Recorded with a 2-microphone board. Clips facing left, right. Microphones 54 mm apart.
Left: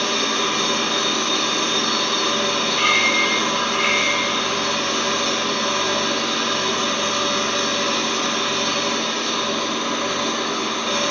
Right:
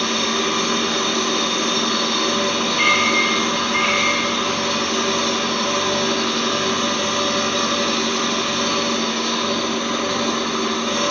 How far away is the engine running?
About 1.4 m.